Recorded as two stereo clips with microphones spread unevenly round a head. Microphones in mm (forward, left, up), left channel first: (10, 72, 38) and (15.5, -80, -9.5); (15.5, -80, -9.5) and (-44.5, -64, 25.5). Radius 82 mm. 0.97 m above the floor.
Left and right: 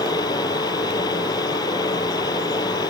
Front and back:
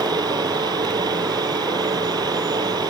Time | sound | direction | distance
0.0 | a fan | 160° left | ?